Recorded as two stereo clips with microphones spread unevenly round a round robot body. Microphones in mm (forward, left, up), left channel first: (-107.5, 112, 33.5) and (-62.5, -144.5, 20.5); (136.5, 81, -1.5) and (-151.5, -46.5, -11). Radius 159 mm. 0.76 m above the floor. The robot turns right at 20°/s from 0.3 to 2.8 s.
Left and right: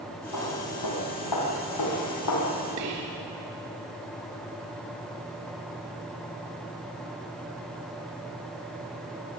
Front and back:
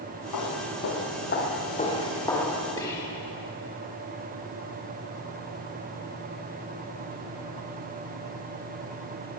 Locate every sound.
0.3 s footsteps: 60° left, 4.5 m; by 2.7 s 110° left, 5.5 m
2.8 s whispering: 55° right, 1.9 m